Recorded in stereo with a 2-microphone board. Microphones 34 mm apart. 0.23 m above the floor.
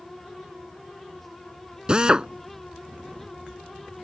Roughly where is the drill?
Right.